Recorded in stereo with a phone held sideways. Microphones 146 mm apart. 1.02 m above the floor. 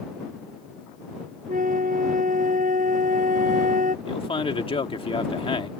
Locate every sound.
1.5 s a flute: 70° right (ahead or behind)
4.0 s a man speaking: 40° left (ahead or behind)